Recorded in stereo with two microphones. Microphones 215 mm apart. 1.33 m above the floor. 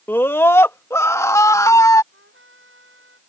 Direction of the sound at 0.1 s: 10° left (ahead or behind).